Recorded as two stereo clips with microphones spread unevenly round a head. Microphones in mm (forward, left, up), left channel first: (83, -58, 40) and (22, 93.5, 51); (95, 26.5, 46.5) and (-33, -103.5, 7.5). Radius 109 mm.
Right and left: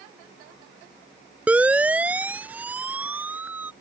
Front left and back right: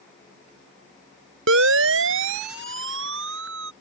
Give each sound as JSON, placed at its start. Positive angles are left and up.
{"t": 1.5, "sound": "a siren", "azimuth_deg": -165}